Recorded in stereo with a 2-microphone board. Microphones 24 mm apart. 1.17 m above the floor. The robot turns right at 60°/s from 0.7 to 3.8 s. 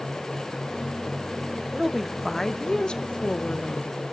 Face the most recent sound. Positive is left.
turn(degrees=100)